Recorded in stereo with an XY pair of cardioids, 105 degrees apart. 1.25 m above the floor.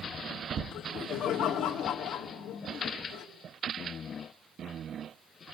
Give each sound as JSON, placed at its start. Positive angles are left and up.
{"t": 0.7, "sound": "laughter", "azimuth_deg": 60, "distance_m": 3.0}